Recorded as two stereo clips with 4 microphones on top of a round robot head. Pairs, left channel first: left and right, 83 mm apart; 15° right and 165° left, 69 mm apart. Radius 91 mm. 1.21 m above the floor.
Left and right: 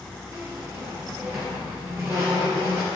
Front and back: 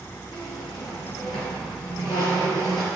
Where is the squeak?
30° right, 1.4 m.